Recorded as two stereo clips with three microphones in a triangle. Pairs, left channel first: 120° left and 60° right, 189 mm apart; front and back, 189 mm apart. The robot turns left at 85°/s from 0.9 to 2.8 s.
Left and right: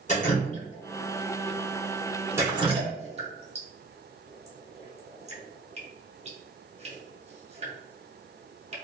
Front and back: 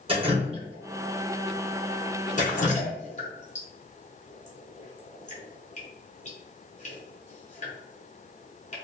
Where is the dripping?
140° left, 0.8 m; by 8.8 s 25° right, 0.8 m.